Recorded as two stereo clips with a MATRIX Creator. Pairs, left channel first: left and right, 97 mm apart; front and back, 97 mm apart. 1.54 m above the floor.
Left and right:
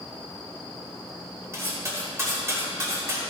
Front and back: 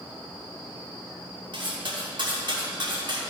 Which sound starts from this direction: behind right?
Cutlery clinking, at 1.5 s.